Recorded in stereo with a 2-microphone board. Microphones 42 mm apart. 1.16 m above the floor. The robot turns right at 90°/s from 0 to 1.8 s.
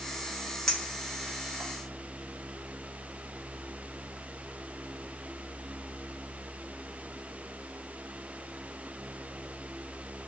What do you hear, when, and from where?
0.7 s a clink: 15° left (ahead or behind), 0.6 m; by 1.7 s 65° right (ahead or behind), 0.6 m